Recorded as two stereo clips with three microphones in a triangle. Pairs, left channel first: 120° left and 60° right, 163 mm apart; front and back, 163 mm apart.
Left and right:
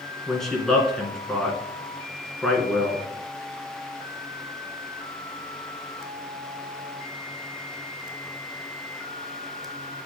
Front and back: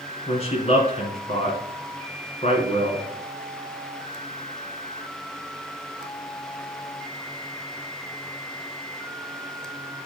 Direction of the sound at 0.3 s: 35° left.